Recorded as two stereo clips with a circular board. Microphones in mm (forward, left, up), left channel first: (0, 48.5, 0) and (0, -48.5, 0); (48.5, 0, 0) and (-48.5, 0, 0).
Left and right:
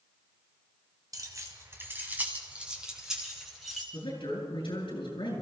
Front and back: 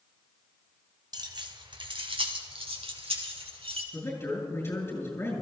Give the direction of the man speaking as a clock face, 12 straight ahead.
10 o'clock.